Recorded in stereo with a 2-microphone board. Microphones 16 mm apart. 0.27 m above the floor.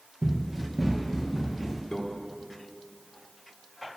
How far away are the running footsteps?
About 3 m.